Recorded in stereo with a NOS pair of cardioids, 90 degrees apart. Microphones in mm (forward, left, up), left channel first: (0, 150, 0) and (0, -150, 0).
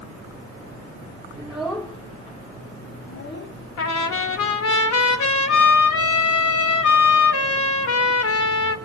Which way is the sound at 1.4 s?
10° right.